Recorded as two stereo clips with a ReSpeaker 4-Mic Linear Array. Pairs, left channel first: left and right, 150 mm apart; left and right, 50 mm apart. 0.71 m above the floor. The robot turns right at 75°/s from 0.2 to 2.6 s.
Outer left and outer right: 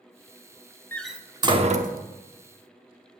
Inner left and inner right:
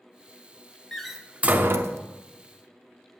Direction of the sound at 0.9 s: 10° left (ahead or behind).